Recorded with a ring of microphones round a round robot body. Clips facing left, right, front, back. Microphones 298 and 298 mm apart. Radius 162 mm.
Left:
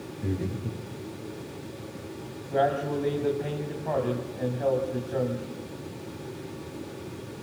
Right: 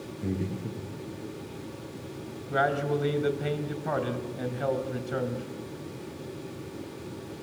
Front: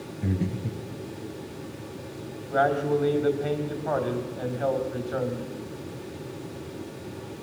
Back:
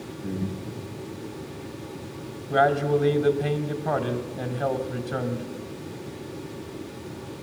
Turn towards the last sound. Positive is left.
turn(degrees=-145)